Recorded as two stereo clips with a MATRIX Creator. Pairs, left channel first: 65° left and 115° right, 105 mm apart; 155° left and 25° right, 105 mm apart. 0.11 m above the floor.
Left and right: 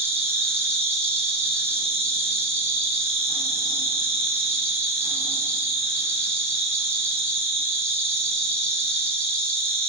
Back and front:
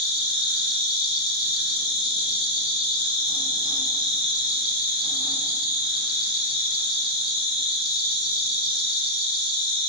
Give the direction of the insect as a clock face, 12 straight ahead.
6 o'clock.